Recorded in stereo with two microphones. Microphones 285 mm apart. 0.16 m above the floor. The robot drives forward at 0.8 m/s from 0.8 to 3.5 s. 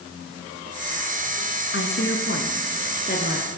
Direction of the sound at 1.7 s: 45° left (ahead or behind).